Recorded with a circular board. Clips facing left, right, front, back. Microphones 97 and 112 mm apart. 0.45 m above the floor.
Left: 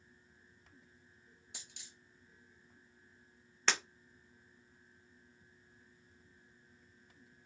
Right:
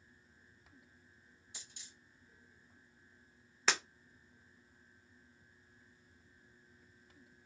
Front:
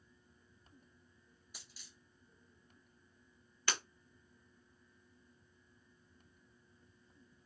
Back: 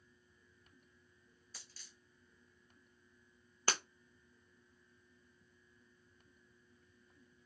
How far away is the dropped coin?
About 1.3 m.